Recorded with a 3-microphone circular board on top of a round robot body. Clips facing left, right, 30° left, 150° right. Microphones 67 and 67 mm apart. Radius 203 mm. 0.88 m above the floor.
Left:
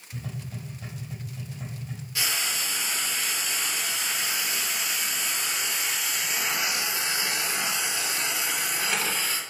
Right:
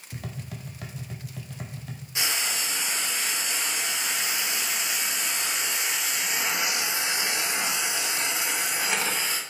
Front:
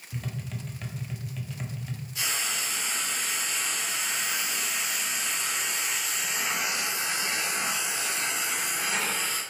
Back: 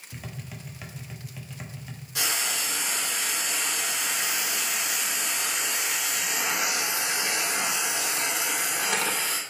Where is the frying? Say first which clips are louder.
Right 1 dB, back 3 dB; 155° right, 2.0 m.